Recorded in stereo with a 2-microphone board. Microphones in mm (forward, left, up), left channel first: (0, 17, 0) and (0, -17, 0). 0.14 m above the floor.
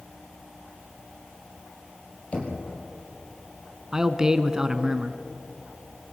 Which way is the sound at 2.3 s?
40° left (ahead or behind).